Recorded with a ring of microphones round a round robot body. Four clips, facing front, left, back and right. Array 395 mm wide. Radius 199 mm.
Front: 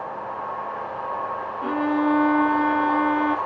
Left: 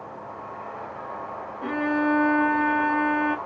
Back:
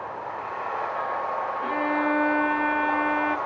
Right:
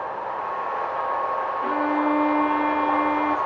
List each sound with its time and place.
1.6 s a violin: 40° left, 0.8 m